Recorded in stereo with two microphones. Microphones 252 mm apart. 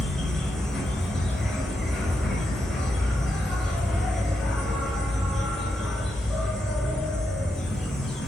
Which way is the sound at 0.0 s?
Centre (ahead or behind).